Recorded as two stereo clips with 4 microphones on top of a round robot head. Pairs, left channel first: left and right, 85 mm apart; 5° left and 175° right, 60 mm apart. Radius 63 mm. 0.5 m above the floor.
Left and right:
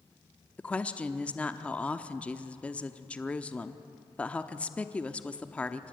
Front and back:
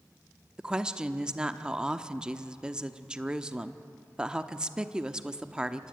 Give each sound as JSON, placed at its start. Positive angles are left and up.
{"t": 0.6, "sound": "a woman speaking", "azimuth_deg": 135, "distance_m": 0.9}